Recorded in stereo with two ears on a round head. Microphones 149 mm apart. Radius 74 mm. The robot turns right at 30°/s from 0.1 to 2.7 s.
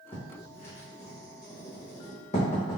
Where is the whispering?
No whispering in this recording.